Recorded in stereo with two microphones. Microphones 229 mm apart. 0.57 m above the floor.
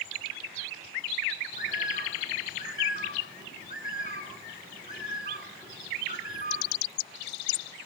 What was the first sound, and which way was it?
A bird, 35° left (ahead or behind).